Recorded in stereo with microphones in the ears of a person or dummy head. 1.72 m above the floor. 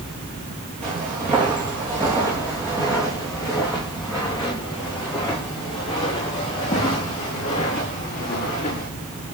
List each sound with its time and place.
0.8 s footsteps: 25° right (ahead or behind), 3 m; by 8.9 s 25° left (ahead or behind), 6 m